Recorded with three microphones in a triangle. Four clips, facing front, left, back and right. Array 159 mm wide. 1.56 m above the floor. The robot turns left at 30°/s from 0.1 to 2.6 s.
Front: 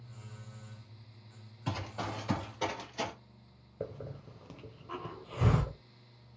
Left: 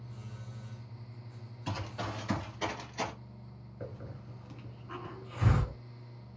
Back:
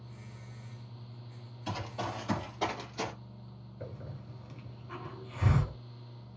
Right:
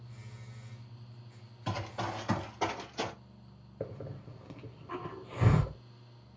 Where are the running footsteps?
50° right, 2 m; by 3.1 s 115° right, 1.7 m.